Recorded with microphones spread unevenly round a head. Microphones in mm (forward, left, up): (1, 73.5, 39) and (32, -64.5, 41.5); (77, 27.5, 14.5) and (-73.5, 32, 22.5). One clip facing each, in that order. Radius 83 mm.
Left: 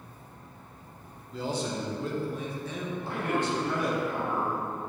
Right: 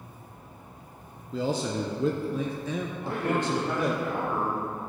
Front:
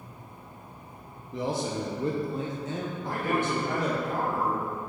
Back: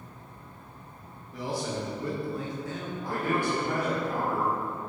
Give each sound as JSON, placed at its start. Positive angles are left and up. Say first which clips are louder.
{"t": 1.3, "sound": "a man speaking", "louder": "right 4 dB, front 2 dB", "azimuth_deg": -70, "distance_m": 0.8}
{"t": 3.0, "sound": "a man speaking", "louder": "right 2 dB, back 1 dB", "azimuth_deg": -130, "distance_m": 2.5}